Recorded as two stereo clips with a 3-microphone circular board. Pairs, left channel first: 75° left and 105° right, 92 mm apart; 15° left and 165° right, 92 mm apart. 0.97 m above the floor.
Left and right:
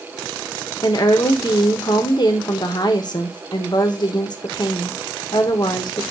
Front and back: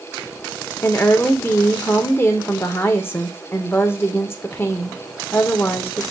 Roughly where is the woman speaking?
Left.